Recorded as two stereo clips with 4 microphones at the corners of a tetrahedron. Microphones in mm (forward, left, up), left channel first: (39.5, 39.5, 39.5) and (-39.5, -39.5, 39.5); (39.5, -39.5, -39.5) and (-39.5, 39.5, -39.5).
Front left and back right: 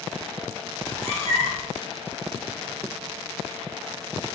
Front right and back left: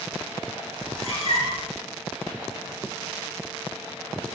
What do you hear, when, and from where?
0.8 s a cat meowing: 25° right, 1.0 m